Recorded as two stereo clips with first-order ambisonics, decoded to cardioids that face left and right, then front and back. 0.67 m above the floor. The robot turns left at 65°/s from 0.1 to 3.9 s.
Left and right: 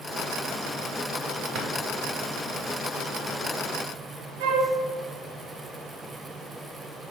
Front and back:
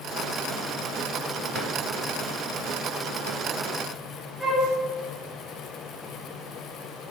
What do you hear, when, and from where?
1.6 s a drawer: 110° right, 0.6 m; by 1.7 s 120° right, 0.6 m
4.4 s a flute: 100° right, 0.7 m